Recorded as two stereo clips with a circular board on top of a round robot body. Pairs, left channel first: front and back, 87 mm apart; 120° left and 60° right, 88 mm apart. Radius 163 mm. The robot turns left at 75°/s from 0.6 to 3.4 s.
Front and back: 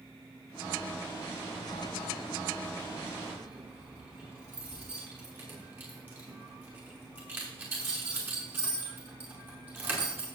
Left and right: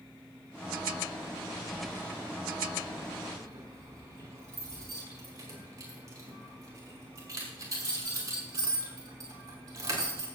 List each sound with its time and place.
1.5 s keys jangling: 25° left, 5.5 m; by 10.3 s 115° right, 5.5 m